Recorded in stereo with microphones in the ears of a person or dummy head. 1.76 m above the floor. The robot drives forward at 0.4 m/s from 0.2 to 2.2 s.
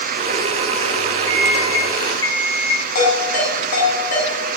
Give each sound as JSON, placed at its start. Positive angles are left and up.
{"t": 1.3, "sound": "an alarm clock", "side_deg": 20, "distance_m": 7.0}
{"t": 3.0, "sound": "a ringtone", "side_deg": 65, "distance_m": 8.5}